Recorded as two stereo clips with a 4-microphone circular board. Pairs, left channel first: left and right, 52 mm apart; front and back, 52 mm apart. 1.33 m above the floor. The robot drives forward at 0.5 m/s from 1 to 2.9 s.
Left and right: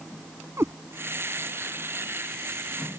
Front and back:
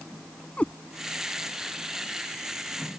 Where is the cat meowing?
65° right.